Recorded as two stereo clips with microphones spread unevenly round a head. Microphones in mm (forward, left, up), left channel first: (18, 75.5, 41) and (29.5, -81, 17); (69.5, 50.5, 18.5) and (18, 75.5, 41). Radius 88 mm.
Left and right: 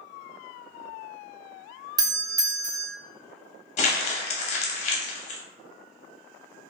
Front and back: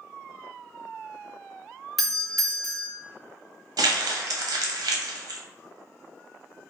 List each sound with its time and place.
2.0 s a doorbell: 70° right, 0.6 m
3.8 s crumpling: 150° left, 0.6 m